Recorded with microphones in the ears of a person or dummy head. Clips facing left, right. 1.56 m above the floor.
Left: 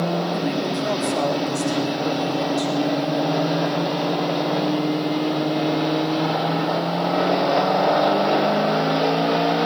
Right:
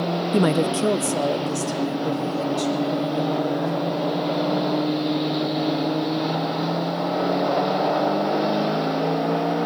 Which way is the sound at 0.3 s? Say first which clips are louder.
Right 4 dB; 70° right (ahead or behind).